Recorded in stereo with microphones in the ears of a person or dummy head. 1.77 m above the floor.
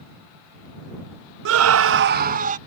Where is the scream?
60° right (ahead or behind); by 2.6 s 40° right (ahead or behind).